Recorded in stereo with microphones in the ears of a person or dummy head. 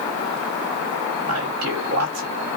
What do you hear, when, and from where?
1.2 s a man speaking: 75° right (ahead or behind), 1.9 m